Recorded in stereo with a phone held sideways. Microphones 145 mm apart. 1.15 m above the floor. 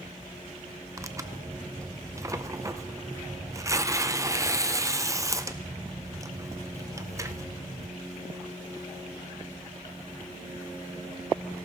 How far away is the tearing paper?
About 0.5 m.